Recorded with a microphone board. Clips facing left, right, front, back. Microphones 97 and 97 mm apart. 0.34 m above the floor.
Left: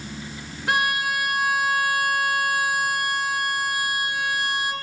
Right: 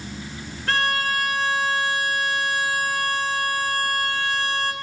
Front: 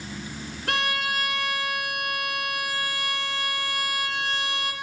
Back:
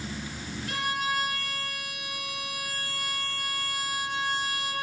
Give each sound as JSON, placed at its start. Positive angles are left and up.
{"t": 0.7, "sound": "a violin", "azimuth_deg": 15, "distance_m": 3.0}